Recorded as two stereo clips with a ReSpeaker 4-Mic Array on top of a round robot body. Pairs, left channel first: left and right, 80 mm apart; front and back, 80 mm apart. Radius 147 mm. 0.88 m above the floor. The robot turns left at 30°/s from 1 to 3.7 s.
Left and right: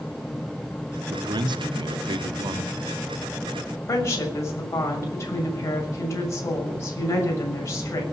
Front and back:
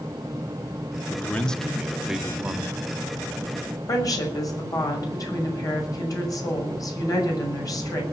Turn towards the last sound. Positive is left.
turn(degrees=40)